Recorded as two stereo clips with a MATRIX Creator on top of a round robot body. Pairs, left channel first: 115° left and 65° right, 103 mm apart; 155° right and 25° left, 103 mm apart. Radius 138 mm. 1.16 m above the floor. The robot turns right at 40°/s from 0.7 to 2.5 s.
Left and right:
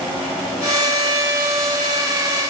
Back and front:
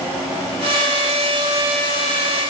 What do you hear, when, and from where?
Only background noise.